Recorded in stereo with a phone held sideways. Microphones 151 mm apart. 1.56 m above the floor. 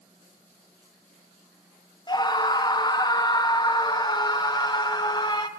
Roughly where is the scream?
Left.